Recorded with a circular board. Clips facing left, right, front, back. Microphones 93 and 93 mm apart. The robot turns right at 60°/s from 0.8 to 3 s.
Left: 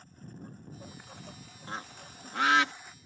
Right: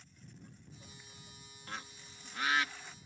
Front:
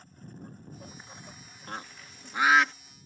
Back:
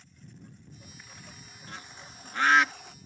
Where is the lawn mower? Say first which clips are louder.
Left 9 dB, front 5 dB; 45° left; by 3.1 s straight behind.